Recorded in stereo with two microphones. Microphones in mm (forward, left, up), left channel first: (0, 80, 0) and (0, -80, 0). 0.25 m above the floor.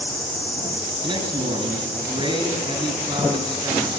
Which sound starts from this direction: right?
A man speaking, at 1.0 s.